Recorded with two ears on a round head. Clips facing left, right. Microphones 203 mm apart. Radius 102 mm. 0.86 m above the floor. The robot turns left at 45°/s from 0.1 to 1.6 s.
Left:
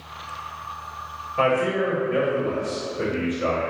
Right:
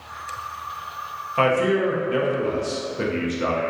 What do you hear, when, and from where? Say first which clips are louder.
1.4 s a man speaking: right 2 dB; 60° right (ahead or behind), 0.7 m; by 3.7 s 55° right (ahead or behind), 0.7 m